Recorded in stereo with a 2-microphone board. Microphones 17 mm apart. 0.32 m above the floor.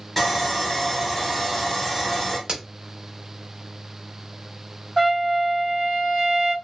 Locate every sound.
0.2 s sawing: 10° left (ahead or behind), 1.1 m
2.5 s a crack: 45° right (ahead or behind), 0.8 m
5.0 s a trumpet: 20° right (ahead or behind), 2 m